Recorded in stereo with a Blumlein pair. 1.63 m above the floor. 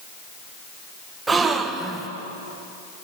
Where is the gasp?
15° right, 1.4 m.